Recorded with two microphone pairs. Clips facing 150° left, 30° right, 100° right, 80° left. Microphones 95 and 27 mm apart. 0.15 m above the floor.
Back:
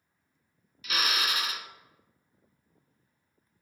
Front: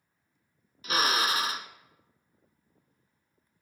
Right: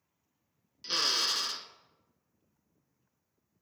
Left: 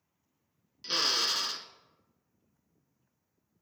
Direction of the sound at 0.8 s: 5° right.